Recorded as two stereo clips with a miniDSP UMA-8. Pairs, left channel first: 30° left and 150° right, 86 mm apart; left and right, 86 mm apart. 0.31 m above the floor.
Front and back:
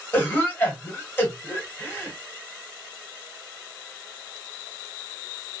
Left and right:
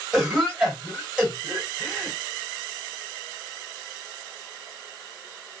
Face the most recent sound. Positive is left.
turn(degrees=-15)